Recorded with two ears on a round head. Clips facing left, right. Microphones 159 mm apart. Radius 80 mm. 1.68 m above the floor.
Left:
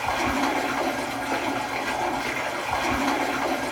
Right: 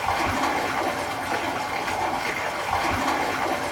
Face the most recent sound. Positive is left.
turn(degrees=5)  # may be behind; listen again after turning